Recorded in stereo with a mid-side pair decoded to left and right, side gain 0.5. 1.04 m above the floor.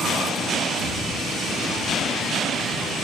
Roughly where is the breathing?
Ahead left.